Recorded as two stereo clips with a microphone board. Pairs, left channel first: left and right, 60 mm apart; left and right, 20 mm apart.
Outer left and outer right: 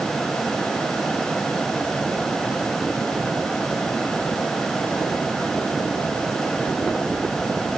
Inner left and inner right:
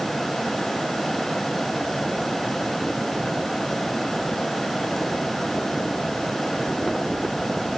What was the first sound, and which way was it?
Only background noise.